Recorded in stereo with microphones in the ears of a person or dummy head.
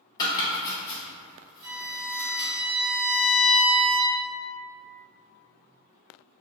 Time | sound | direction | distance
0.2 | chopping | 25° left (ahead or behind) | 1.1 m
1.6 | a violin | 40° right (ahead or behind) | 1.4 m